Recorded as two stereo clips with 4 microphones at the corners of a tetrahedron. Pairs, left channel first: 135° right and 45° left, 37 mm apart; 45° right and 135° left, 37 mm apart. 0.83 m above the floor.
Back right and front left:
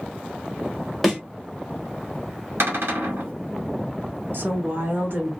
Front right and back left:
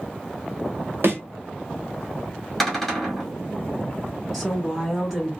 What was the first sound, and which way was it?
A thud, 140° left.